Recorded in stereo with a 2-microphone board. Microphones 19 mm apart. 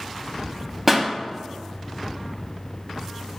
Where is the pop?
5° right (ahead or behind), 0.5 m.